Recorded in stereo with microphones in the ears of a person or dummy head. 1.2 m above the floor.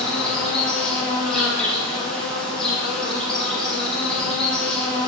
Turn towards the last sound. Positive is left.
turn(degrees=5)  # may be behind; listen again after turning